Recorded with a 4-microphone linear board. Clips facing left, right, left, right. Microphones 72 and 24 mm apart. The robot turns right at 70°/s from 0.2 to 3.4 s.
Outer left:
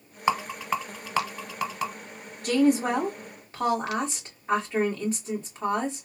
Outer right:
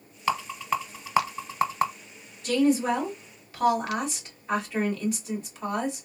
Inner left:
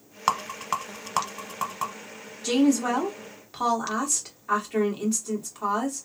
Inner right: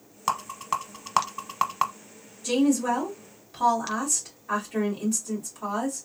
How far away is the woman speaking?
About 2.0 m.